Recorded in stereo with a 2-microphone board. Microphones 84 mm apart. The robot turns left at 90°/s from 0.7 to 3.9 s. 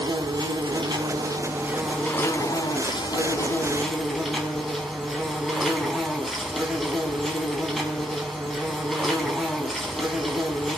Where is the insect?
70° right, 4.5 m; by 10.8 s straight ahead, 4.5 m.